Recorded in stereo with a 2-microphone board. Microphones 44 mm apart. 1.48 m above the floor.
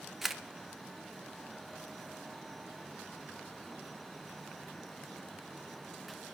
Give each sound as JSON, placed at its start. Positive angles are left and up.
{"t": 0.2, "sound": "a camera shutter", "side_deg": -5, "distance_m": 0.6}